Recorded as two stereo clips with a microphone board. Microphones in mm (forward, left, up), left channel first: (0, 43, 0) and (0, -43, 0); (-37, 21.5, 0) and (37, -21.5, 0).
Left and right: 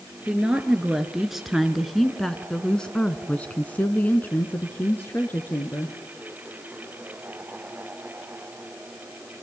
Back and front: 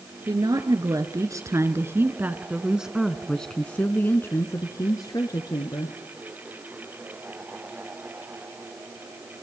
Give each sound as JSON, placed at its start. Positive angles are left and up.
{"t": 0.3, "sound": "a woman speaking", "azimuth_deg": -10, "distance_m": 2.5}